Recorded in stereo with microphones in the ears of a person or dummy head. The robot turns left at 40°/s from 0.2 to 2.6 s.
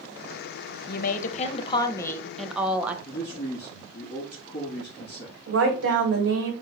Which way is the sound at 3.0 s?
50° left (ahead or behind).